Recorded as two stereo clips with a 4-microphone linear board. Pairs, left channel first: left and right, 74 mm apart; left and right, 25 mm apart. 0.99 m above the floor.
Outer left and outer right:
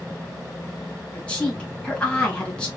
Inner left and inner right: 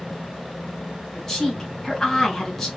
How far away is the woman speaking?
About 2 m.